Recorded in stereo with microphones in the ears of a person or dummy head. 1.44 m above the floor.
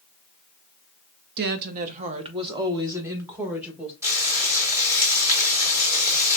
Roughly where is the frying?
Centre.